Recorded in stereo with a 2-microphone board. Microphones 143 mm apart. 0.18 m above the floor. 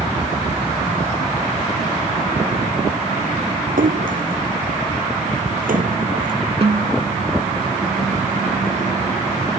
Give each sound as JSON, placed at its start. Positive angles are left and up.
{"t": 3.8, "sound": "a splash", "side_deg": -75}
{"t": 6.6, "sound": "a snare drum", "side_deg": -45}